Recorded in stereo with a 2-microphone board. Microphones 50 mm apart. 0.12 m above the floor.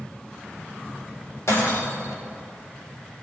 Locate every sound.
1.5 s breaking glass: 65° left (ahead or behind), 5 m